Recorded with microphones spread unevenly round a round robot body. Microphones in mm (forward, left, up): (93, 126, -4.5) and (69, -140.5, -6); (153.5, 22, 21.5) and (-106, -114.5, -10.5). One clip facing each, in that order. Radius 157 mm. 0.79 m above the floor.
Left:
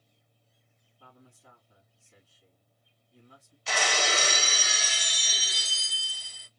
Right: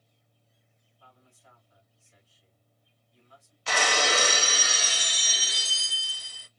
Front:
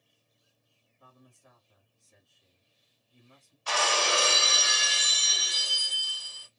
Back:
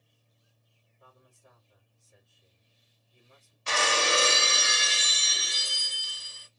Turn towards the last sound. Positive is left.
turn(degrees=-85)